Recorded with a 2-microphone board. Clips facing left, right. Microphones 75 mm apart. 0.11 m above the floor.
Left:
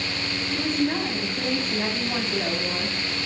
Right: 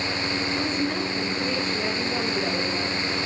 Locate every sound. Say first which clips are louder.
0.5 s a woman speaking: left 5 dB; 50° left (ahead or behind), 8 m